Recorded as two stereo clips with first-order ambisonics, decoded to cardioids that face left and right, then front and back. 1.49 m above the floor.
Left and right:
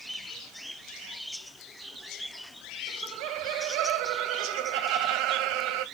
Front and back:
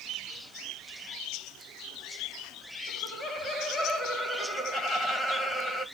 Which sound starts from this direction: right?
Laughter, at 2.9 s.